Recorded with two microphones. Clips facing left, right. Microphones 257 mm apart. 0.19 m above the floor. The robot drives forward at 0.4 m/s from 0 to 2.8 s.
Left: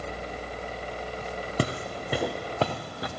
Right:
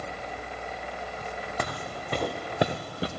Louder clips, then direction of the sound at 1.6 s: Left 8 dB; 35° left (ahead or behind).